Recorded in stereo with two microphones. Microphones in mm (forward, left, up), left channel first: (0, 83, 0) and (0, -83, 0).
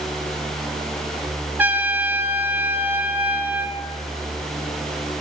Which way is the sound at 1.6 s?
10° right (ahead or behind).